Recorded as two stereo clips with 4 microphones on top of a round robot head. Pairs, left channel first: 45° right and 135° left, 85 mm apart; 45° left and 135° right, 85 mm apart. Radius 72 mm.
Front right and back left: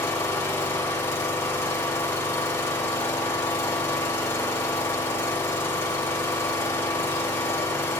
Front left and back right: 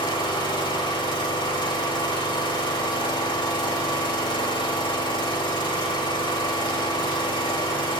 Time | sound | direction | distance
0.0 | an engine running | 20° left | 2.5 m